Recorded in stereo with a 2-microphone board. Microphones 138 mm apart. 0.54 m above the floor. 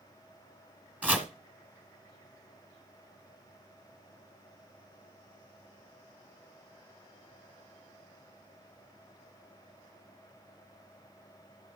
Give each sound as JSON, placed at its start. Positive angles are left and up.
{"t": 1.0, "sound": "chopping", "side_deg": -10, "distance_m": 1.4}